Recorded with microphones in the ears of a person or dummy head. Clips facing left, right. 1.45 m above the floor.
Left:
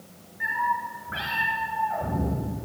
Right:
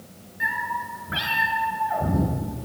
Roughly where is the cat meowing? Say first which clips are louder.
Left 2 dB; right.